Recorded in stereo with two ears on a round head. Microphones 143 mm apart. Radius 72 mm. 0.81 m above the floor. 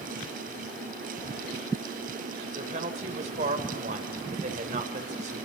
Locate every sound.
2.5 s a woman speaking: 45° right (ahead or behind), 3 m